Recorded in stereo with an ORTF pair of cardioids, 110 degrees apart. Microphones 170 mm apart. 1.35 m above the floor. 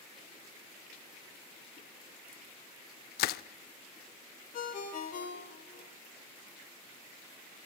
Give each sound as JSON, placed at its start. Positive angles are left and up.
{"t": 3.2, "sound": "crushing", "azimuth_deg": 70, "distance_m": 0.5}
{"t": 4.5, "sound": "a ringtone", "azimuth_deg": 55, "distance_m": 3.0}